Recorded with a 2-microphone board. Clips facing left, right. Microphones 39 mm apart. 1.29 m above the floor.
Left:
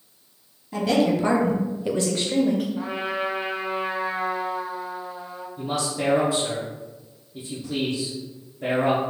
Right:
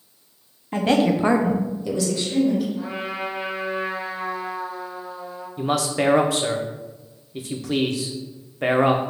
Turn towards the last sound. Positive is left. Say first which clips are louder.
# right 5 dB
turn(degrees=-85)